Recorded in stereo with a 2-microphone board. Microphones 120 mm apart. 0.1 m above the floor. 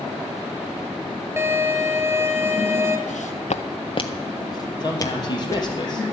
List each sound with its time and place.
1.4 s a violin: 20° right (ahead or behind), 1.0 m
3.1 s footsteps: 90° left, 0.6 m; by 5.7 s 20° left (ahead or behind), 1.9 m
4.8 s a man speaking: 35° left (ahead or behind), 3 m